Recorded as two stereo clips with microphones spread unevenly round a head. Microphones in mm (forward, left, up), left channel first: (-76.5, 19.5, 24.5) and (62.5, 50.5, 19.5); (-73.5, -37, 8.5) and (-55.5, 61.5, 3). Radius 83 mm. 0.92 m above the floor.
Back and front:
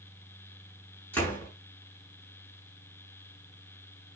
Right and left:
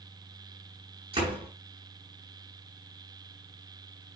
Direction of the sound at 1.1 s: 115° left.